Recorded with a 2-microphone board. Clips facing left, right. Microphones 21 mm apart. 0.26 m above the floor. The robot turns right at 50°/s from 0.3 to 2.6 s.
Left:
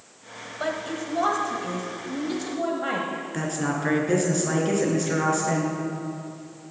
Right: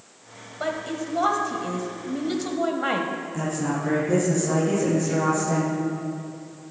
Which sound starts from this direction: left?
A woman speaking, at 3.3 s.